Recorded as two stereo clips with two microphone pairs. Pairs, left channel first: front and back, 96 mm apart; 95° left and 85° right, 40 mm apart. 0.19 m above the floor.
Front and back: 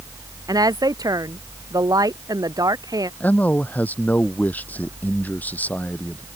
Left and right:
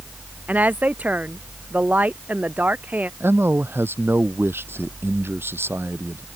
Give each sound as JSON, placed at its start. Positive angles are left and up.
{"t": 0.5, "sound": "a woman speaking", "azimuth_deg": -130}
{"t": 3.2, "sound": "a man speaking", "azimuth_deg": -70}